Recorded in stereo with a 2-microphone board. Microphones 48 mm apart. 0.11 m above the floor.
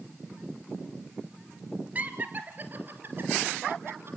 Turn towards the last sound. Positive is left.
turn(degrees=-50)  # may be behind; listen again after turning